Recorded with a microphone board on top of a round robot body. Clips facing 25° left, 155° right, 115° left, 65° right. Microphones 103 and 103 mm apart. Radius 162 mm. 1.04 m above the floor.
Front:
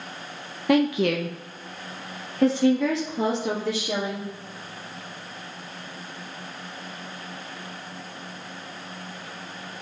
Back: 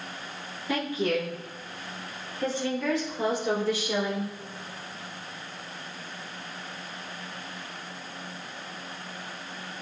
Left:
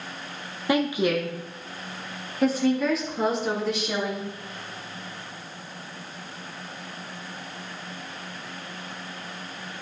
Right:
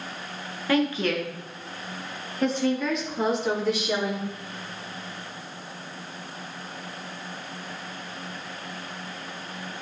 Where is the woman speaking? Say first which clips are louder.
Front 7 dB, left 1 dB; 40° left, 1.1 m; by 4.3 s 20° left, 3 m.